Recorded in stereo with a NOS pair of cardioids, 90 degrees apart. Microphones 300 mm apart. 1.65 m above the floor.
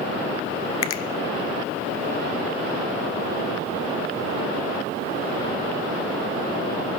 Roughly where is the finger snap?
Ahead left.